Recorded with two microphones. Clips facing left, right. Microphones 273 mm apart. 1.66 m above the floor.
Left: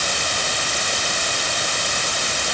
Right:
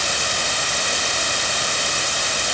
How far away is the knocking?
I don't hear knocking.